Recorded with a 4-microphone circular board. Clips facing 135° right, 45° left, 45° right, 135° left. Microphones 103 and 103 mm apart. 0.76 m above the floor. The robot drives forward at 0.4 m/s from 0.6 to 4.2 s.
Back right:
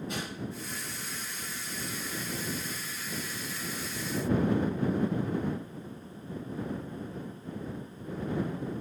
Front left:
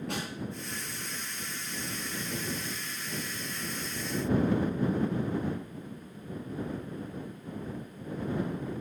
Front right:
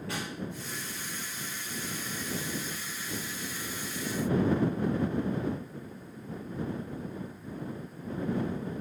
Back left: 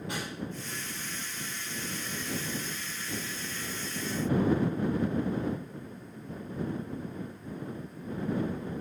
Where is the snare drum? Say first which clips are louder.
Front left 2 dB, front right 1 dB; 65° left, 5.5 m.